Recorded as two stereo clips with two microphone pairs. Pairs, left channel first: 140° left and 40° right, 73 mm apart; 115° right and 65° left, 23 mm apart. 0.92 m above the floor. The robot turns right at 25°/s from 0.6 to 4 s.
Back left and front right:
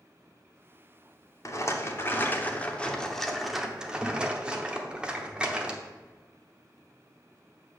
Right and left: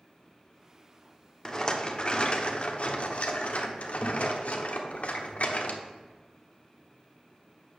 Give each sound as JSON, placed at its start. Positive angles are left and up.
{"t": 1.4, "sound": "a rattle", "azimuth_deg": 180, "distance_m": 0.8}